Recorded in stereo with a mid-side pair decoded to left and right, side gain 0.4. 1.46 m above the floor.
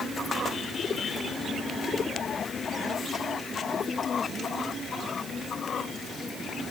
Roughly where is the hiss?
No hiss in this recording.